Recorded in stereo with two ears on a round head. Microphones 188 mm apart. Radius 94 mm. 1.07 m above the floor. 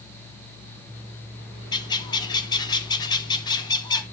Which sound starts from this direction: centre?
A bird, at 1.7 s.